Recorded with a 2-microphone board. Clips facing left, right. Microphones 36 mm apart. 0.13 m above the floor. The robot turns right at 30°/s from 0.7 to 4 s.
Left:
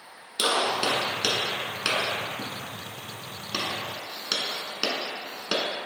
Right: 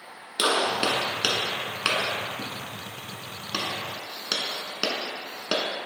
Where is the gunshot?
20° right (ahead or behind), 0.7 m; by 5.7 s 10° right (ahead or behind), 0.7 m.